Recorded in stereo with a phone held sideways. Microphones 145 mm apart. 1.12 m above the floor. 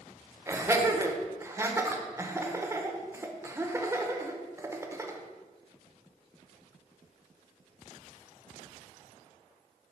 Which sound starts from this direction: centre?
Laughter, at 0.5 s.